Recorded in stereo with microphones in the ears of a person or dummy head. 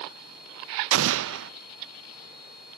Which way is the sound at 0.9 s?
75° right (ahead or behind).